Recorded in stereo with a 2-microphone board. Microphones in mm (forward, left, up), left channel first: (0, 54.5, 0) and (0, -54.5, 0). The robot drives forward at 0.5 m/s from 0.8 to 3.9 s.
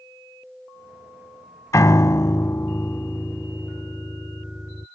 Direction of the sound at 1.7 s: 30° left (ahead or behind).